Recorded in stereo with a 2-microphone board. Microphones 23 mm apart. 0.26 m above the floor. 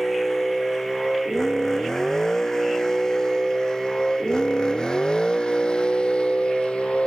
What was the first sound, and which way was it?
A vehicle, 15° left (ahead or behind).